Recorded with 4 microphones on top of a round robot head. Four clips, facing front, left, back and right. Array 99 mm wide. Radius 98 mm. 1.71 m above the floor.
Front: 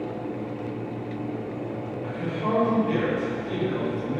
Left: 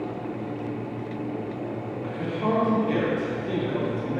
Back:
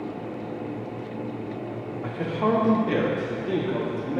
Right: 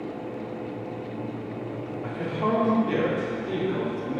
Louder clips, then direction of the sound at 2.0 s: Even, back 4 dB; 160° right.